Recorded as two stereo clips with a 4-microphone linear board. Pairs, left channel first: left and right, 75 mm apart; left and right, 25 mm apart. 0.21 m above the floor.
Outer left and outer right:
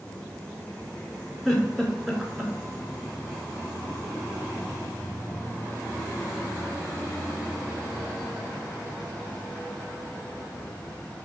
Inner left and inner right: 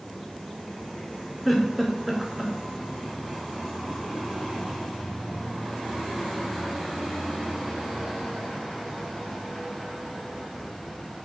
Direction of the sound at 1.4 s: 10° right (ahead or behind).